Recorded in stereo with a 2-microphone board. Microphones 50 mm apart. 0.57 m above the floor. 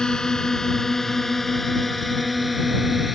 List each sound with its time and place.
0.0 s a drone: 15° left (ahead or behind); by 3.2 s centre (ahead or behind)